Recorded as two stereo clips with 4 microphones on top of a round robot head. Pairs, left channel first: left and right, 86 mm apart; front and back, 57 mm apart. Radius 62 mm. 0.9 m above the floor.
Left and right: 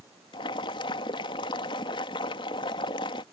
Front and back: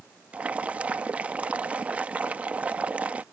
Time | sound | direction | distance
0.3 | boiling | 115° left | ?